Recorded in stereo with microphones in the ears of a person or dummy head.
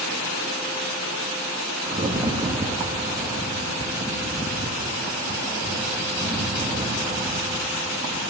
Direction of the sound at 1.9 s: 15° right (ahead or behind).